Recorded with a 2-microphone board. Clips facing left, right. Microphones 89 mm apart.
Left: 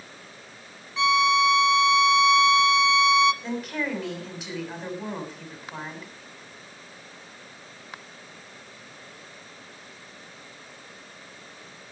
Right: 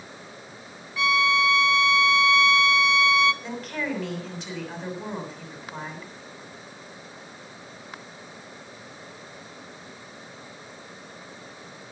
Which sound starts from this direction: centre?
A woman speaking, at 3.4 s.